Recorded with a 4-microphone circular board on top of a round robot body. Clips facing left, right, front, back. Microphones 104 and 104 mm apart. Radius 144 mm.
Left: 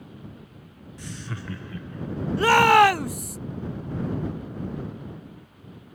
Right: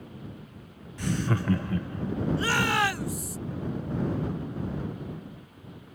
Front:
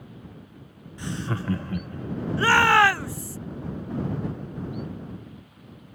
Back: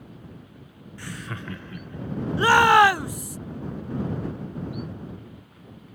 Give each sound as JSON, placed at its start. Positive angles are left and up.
{"t": 1.0, "sound": "laughter", "azimuth_deg": -70}
{"t": 2.4, "sound": "a shout", "azimuth_deg": 110}